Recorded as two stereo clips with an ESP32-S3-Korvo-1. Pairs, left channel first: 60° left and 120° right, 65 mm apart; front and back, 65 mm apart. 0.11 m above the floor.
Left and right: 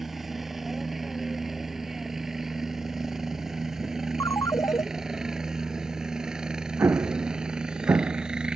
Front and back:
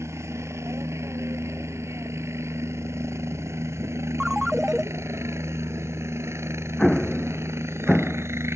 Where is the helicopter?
155° left; by 8.6 s 170° left.